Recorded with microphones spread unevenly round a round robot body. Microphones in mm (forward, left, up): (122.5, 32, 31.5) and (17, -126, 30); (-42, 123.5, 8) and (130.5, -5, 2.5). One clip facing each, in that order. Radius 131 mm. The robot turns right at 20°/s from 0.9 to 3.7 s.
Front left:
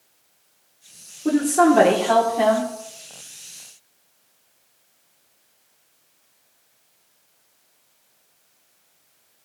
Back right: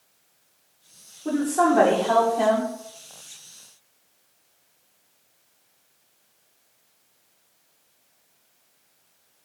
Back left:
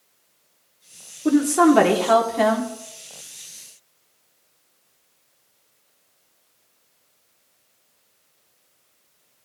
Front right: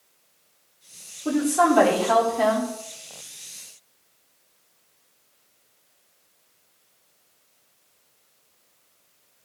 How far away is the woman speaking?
About 1.9 m.